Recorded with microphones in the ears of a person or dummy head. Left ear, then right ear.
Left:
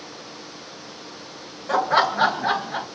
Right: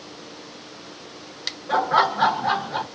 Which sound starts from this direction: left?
Laughter, at 1.7 s.